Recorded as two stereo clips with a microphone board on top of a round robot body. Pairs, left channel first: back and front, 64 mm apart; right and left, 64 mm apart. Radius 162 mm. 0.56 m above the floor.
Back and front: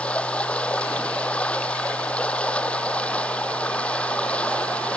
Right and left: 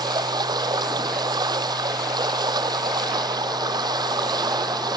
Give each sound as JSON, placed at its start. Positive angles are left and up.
{"t": 0.0, "sound": "running water", "azimuth_deg": 105}